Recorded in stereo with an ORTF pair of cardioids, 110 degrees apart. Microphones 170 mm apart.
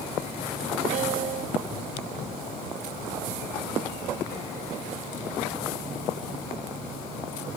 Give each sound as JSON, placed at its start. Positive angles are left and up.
{"t": 0.9, "sound": "a piano", "azimuth_deg": -55}